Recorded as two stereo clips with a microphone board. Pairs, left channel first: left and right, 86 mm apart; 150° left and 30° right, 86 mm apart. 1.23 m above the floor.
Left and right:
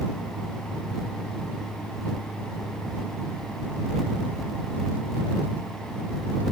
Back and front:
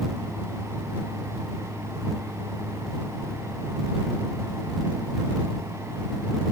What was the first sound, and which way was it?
Only background noise.